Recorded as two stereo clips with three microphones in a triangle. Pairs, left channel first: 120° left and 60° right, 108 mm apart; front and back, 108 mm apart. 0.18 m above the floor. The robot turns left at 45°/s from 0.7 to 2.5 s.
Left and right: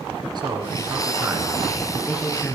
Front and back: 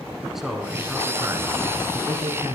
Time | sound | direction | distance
0.3 | a man speaking | 95° right | 2.5 m